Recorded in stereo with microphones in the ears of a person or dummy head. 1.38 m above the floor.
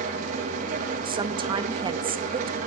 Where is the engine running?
45° right (ahead or behind), 2.0 m.